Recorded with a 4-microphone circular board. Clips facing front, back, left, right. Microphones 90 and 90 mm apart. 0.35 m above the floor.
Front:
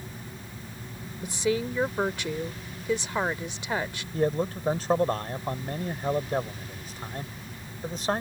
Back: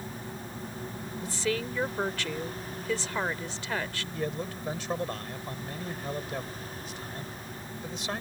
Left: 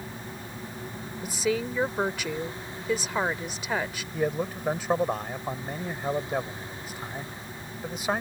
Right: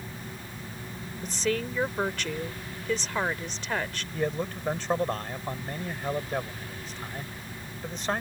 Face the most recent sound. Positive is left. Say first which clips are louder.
# front 8 dB, left 2 dB
turn(degrees=15)